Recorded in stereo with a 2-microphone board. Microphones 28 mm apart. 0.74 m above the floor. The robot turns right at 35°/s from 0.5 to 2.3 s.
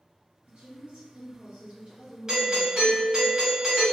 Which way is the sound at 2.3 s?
25° right (ahead or behind).